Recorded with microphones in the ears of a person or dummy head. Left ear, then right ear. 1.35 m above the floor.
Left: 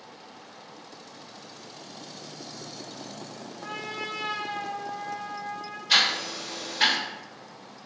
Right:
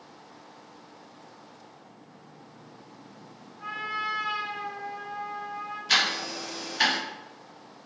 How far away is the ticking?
About 1.0 m.